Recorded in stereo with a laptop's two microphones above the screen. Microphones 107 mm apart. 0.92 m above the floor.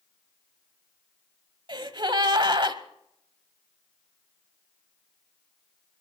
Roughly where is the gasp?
Right.